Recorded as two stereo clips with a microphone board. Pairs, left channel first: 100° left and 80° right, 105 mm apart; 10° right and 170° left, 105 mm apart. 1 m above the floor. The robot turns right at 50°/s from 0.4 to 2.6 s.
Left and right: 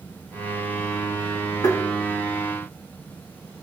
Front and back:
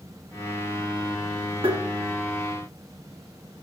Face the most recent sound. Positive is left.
turn(degrees=-165)